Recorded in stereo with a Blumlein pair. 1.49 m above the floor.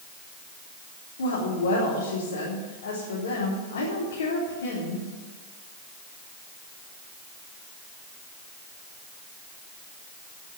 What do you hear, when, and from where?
1.2 s a woman speaking: 65° left, 3.5 m